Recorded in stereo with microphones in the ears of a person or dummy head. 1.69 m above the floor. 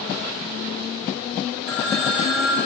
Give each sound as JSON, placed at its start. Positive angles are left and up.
{"t": 1.7, "sound": "a phone ringing", "side_deg": -10, "distance_m": 5.0}